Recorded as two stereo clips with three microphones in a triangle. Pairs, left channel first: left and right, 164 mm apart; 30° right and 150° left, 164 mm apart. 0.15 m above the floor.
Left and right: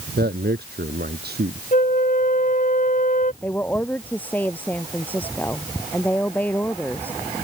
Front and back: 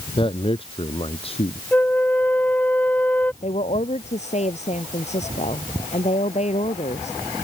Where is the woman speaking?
10° left.